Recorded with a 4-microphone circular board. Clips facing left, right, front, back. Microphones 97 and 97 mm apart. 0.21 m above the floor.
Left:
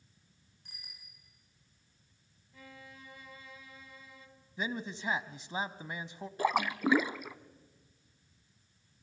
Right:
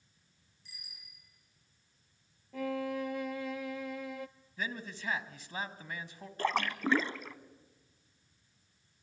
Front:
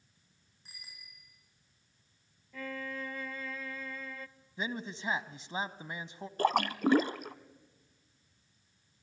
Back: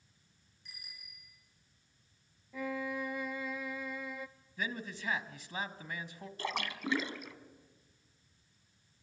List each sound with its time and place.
0.7 s a bicycle bell: 55° left, 9 m
2.5 s a violin: 105° right, 0.6 m
4.6 s a man speaking: 40° left, 1.1 m
6.4 s a splash: 15° left, 0.7 m